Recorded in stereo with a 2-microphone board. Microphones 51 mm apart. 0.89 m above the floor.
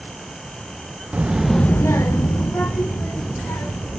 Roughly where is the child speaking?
Right.